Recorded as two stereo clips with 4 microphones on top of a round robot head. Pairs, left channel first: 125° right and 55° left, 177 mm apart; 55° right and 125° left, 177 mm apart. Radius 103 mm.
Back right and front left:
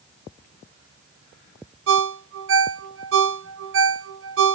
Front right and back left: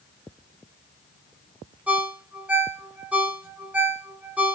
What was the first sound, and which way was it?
A ringtone, 45° left.